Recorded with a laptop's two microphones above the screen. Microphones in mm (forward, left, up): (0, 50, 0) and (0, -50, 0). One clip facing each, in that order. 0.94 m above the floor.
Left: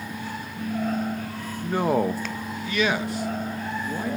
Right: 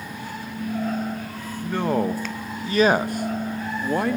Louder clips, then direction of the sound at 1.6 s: Even; 15° left (ahead or behind).